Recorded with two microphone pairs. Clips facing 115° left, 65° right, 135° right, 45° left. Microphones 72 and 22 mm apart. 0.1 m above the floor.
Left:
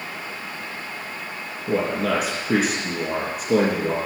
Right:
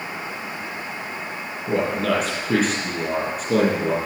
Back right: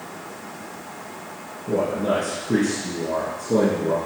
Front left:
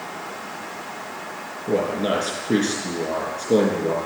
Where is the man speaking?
35° left, 3 m.